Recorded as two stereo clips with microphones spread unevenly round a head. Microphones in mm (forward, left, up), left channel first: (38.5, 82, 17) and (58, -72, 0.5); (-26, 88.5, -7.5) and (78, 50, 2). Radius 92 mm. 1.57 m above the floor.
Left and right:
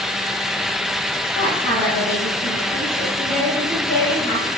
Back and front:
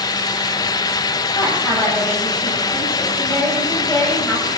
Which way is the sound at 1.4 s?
80° left.